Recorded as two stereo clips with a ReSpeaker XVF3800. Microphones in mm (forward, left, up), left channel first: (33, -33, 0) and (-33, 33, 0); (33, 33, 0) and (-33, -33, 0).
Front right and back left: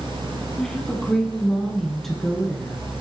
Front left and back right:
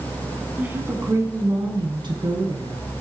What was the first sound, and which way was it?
A woman speaking, 110° right.